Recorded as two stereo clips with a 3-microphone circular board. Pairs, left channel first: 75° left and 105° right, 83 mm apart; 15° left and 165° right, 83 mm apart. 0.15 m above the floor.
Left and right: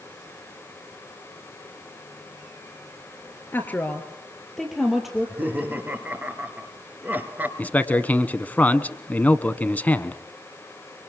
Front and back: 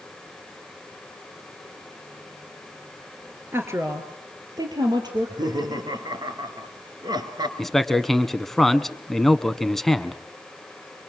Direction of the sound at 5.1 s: 170° right.